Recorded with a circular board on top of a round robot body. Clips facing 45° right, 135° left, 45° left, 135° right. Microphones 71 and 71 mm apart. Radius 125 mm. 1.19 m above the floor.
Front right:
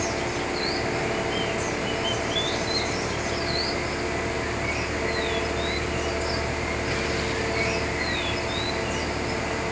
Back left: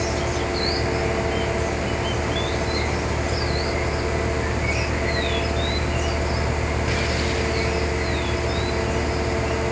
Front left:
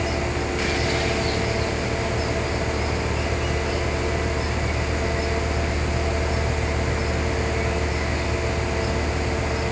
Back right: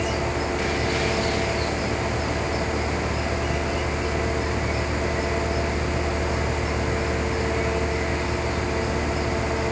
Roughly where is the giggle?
No giggle in this recording.